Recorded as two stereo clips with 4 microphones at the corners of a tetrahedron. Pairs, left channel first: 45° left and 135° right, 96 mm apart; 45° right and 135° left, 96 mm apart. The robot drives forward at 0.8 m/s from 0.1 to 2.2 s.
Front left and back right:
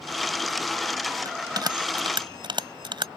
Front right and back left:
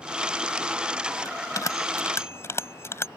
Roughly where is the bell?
Right.